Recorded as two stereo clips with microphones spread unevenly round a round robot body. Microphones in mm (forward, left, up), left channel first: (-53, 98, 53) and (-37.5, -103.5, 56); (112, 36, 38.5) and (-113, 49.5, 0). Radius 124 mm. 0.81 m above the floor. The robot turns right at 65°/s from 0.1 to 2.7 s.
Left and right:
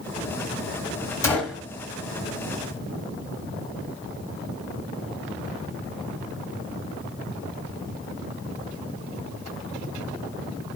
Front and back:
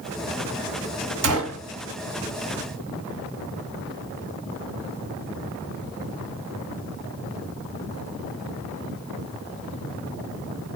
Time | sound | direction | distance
1.2 | a gunshot | 170° left | 1.1 m